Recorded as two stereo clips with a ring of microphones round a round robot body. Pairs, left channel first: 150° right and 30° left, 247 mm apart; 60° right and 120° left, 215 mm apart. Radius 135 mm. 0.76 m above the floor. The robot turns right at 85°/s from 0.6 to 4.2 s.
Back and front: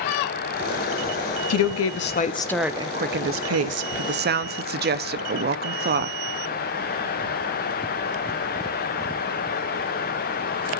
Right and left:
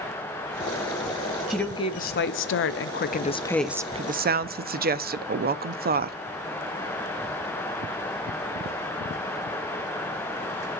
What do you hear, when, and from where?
1.5 s a woman speaking: 155° right, 0.8 m; by 6.2 s 75° left, 0.8 m